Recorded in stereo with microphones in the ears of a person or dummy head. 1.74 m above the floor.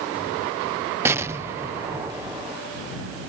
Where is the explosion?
15° right (ahead or behind).